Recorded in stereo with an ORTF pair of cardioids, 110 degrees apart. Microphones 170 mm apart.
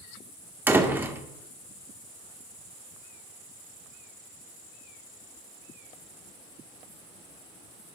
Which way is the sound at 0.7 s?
10° right.